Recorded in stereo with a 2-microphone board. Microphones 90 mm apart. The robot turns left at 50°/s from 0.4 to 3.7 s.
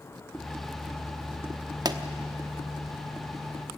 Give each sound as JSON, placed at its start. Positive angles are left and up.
{"t": 1.9, "sound": "a pop", "side_deg": -50, "distance_m": 1.0}